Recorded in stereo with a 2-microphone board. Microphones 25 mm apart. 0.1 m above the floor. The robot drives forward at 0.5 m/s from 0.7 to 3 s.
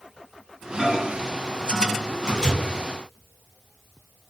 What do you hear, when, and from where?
0.8 s a microwave: 20° right (ahead or behind), 1.5 m